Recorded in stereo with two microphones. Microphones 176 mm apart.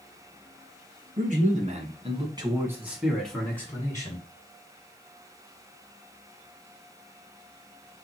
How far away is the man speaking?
About 1.9 m.